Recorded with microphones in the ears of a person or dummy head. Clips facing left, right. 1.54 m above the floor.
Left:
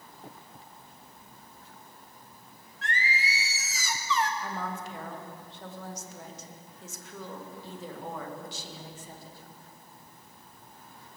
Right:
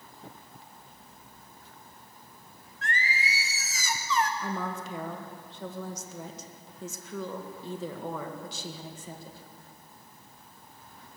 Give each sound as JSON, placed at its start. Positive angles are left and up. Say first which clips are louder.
{"t": 2.8, "sound": "singing", "louder": "even", "side_deg": -40, "distance_m": 0.7}
{"t": 4.4, "sound": "a woman speaking", "louder": "right 2 dB", "side_deg": -80, "distance_m": 1.9}